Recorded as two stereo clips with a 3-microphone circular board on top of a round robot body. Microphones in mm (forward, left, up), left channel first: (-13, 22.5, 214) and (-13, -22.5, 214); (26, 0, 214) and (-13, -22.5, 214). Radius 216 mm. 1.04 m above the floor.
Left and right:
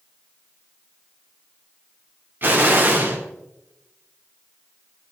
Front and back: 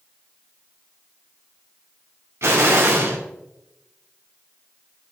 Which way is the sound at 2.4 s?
130° right.